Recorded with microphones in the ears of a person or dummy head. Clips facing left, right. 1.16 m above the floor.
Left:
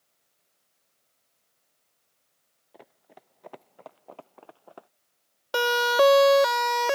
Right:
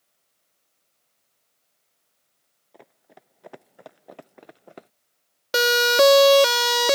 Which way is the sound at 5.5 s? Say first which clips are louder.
Right 3 dB; 25° right (ahead or behind).